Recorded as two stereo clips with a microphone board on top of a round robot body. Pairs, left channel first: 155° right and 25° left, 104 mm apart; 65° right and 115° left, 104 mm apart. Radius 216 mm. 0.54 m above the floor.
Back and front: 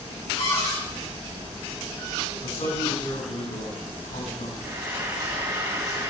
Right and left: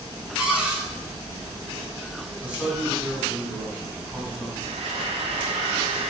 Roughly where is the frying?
Left.